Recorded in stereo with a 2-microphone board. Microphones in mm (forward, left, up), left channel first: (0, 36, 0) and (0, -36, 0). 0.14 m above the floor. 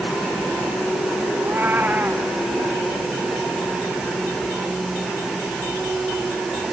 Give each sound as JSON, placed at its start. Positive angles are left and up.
{"t": 1.4, "sound": "a cat meowing", "side_deg": -25}